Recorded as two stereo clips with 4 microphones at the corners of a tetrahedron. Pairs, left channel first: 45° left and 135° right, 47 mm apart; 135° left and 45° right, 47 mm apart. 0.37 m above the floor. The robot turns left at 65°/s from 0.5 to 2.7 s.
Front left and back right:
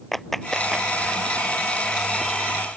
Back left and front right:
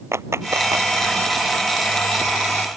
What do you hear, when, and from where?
0.1 s a clap: 40° right; by 0.9 s 65° right